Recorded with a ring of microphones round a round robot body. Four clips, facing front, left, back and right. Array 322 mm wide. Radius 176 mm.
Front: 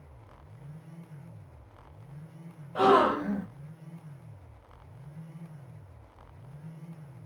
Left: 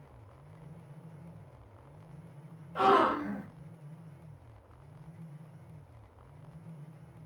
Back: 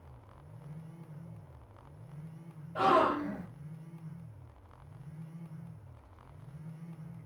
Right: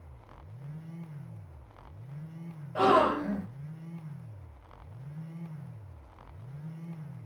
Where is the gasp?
40° right, 1.0 m.